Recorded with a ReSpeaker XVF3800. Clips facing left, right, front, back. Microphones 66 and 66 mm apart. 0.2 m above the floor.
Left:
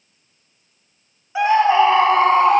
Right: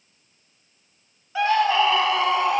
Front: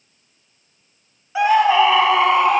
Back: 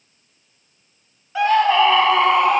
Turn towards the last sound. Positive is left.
turn(degrees=90)